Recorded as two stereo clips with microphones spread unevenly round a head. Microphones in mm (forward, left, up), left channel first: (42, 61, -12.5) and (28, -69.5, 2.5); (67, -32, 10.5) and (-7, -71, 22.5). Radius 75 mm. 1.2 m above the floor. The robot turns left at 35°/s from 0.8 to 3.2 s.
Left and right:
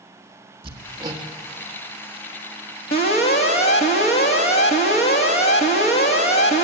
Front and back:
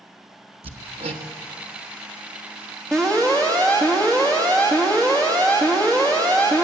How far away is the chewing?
I don't hear chewing.